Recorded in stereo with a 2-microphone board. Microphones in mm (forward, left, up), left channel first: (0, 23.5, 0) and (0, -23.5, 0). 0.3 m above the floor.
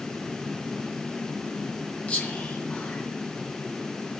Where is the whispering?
25° left (ahead or behind), 2.5 m.